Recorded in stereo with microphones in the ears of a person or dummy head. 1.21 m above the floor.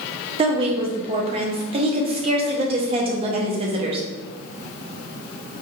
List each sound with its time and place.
0.4 s a woman speaking: 25° right (ahead or behind), 0.7 m